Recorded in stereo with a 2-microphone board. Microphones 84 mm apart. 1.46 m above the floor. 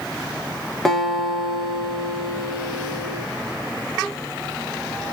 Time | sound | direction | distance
0.8 | a guitar | centre (ahead or behind) | 1.0 m